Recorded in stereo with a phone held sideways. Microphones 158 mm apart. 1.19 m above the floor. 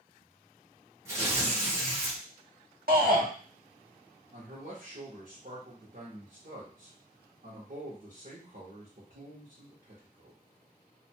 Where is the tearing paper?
15° right (ahead or behind), 2 m.